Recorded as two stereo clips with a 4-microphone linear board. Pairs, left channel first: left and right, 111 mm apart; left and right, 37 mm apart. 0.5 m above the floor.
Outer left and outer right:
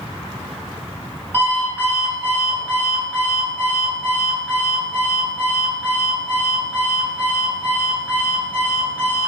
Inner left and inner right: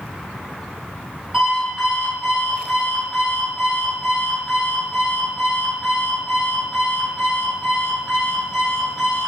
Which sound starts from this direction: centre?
An alarm clock, at 1.3 s.